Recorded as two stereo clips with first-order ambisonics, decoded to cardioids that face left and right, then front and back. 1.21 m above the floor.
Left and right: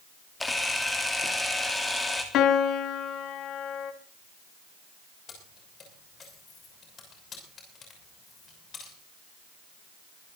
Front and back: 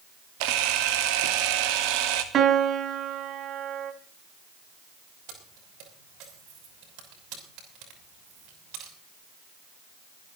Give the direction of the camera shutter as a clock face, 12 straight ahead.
6 o'clock.